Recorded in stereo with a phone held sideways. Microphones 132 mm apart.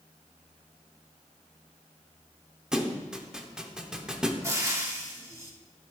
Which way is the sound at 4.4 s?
20° right (ahead or behind).